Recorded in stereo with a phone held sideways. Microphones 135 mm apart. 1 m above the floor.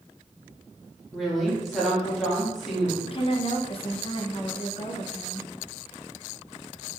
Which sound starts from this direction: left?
A woman speaking, at 3.0 s.